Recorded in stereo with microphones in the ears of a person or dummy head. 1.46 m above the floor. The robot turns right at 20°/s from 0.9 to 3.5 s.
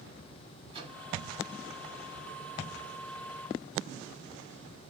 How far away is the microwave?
About 1.8 m.